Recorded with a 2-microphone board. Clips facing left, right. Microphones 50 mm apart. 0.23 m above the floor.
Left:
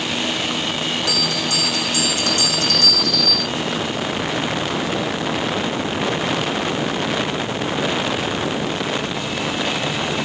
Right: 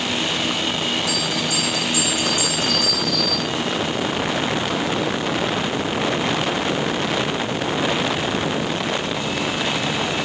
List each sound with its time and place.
1.1 s a bell: 70° left (ahead or behind), 3.5 m